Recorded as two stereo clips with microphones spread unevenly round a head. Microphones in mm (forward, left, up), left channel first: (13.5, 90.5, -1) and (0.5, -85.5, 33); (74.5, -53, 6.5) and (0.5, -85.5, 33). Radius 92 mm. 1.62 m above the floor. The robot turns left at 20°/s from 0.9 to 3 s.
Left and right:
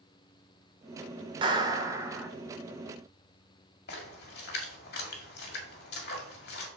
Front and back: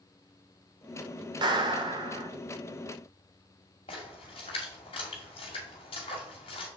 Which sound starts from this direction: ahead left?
A splash, at 3.9 s.